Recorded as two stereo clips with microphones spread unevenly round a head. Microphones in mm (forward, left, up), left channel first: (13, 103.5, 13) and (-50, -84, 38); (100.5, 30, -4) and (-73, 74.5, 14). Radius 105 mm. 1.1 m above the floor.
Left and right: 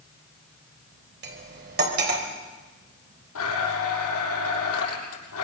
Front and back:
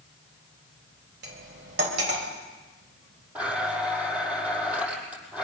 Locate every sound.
1.2 s cutlery clinking: 150° right, 3.5 m
3.4 s a blender: 85° left, 7.5 m